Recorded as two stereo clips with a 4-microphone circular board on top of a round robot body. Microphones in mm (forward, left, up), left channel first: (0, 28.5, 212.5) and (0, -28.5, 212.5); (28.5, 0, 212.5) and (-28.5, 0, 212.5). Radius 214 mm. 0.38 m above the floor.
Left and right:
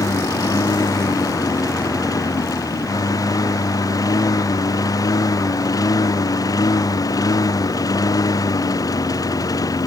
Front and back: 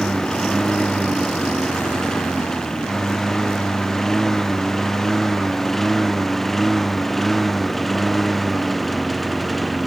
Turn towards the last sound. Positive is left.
turn(degrees=90)